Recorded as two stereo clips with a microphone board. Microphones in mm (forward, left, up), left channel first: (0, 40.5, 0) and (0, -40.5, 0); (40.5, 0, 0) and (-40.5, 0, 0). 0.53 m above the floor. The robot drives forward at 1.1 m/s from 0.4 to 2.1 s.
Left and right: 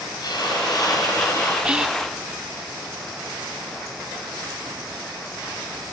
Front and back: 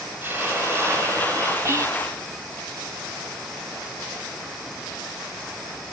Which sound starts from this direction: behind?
Whispering, at 1.6 s.